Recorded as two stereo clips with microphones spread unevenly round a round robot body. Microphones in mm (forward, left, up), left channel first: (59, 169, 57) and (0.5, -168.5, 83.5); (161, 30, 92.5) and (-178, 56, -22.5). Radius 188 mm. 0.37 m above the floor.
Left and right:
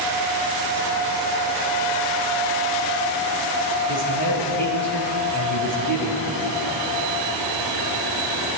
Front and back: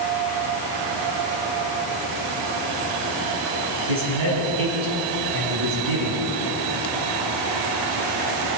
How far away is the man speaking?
About 4 m.